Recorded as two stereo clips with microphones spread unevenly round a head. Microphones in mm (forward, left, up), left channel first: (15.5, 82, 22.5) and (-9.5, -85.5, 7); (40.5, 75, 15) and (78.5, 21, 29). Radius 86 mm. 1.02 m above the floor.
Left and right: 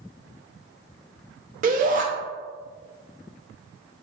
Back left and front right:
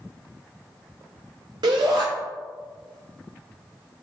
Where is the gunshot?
I don't hear a gunshot.